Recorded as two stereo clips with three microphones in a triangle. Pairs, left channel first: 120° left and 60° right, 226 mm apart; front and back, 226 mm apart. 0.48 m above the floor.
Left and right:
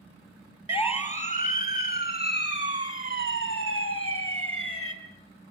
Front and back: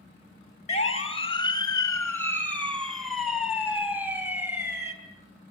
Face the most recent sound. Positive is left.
turn(degrees=100)